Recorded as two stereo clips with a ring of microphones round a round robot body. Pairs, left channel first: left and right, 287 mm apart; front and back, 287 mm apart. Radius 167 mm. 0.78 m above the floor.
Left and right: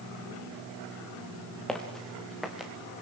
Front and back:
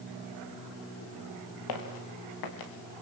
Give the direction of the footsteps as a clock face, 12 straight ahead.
12 o'clock.